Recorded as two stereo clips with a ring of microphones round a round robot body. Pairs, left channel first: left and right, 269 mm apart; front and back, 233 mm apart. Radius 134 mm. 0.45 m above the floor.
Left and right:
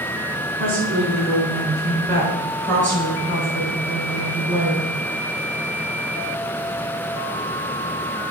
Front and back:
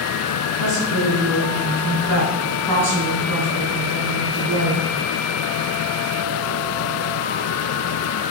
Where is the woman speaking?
140° right, 4.5 m; by 4.9 s 165° right, 6 m.